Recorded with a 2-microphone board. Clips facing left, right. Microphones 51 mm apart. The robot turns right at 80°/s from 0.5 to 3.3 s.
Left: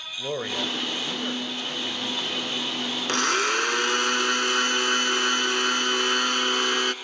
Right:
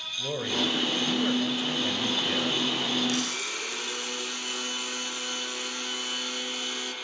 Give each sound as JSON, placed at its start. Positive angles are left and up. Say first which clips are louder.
{"t": 0.2, "sound": "a man speaking", "louder": "even", "side_deg": 20, "distance_m": 1.3}
{"t": 3.1, "sound": "a blender", "louder": "left 8 dB", "side_deg": 60, "distance_m": 0.9}